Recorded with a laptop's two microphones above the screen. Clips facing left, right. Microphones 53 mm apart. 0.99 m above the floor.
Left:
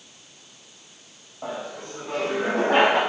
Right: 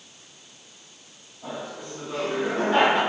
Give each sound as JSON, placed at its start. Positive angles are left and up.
{"t": 1.4, "sound": "laughter", "side_deg": 75, "distance_m": 6.0}